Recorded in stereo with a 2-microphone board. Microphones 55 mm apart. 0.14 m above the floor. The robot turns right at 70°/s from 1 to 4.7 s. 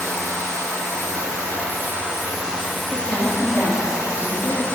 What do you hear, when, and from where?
0.0 s running water: 120° right, 2 m; by 4.8 s 135° left, 2 m
2.9 s a woman speaking: 20° right, 3 m; by 4.8 s 105° left, 3 m